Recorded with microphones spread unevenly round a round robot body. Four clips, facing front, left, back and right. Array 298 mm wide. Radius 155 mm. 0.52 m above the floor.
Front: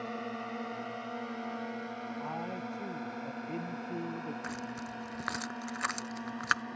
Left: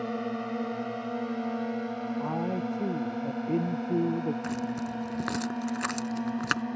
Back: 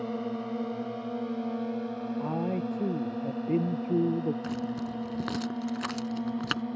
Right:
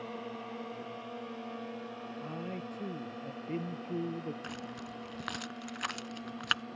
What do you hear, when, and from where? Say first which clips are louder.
0.0 s a drone: left 9 dB, back 6 dB; 135° left
2.2 s a man speaking: left 9 dB, back 9 dB; 150° left
4.4 s keys jangling: left 11 dB, back 7 dB; 140° left